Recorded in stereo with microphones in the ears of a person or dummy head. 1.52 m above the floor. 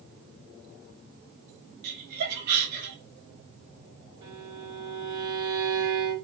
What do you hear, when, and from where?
1.8 s laughter: 55° right (ahead or behind), 1.0 m
4.2 s a violin: 25° right (ahead or behind), 0.9 m